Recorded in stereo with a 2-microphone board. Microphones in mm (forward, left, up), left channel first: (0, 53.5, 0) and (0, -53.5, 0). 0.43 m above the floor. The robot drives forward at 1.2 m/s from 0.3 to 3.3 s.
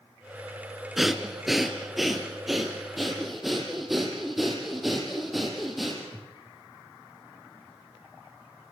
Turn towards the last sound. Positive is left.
turn(degrees=0)  # may be behind; listen again after turning